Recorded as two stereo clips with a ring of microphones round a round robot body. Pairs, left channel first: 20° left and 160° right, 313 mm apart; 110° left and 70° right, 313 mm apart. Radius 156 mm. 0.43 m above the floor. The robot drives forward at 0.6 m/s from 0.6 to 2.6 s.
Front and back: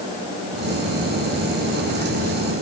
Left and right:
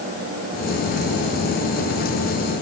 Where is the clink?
I don't hear a clink.